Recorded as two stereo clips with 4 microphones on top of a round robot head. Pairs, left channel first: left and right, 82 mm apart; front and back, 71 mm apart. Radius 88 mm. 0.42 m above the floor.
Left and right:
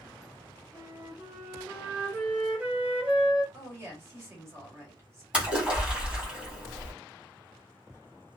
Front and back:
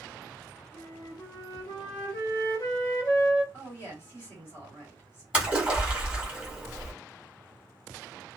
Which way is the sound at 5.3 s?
135° right.